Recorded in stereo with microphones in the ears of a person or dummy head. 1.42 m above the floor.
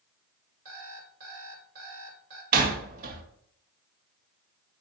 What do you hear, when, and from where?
0.7 s an alarm clock: 55° right (ahead or behind), 3 m
2.5 s a door slam: 50° right (ahead or behind), 1.4 m